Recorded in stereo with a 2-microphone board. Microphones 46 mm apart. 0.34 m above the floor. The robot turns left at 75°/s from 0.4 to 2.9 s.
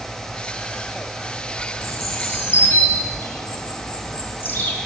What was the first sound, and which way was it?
A bird, 55° left (ahead or behind).